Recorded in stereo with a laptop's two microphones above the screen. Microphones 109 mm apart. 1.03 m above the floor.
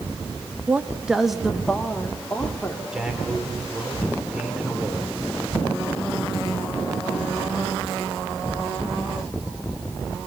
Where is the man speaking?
5° right (ahead or behind), 3.5 m.